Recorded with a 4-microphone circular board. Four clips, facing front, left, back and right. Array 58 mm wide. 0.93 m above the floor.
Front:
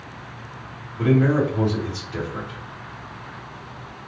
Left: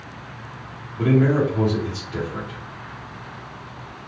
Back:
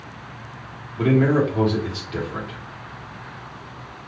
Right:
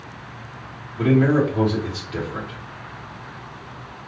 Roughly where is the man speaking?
Behind.